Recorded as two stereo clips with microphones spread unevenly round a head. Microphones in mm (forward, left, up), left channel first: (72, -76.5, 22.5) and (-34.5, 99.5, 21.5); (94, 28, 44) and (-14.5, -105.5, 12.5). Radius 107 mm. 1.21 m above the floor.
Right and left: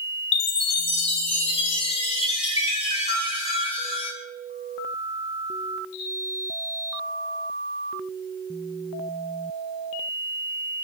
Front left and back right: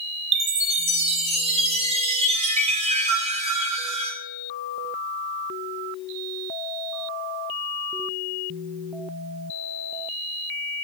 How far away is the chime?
About 1.0 m.